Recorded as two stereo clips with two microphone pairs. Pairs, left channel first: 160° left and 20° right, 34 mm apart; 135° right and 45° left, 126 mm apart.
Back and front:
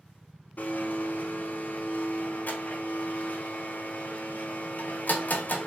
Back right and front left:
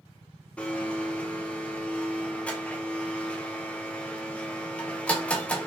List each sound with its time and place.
0.6 s a blender: 145° left, 0.7 m